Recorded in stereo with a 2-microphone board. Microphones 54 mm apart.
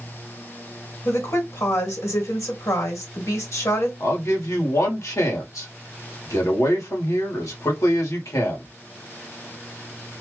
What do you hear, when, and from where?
1.1 s a woman speaking: 65° left (ahead or behind), 2.0 m
4.0 s a man speaking: 80° left, 1.6 m